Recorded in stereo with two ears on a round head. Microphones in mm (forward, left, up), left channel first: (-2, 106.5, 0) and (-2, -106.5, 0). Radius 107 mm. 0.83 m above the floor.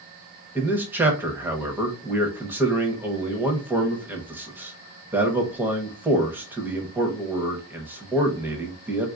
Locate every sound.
0.6 s a man speaking: 10° right (ahead or behind), 0.7 m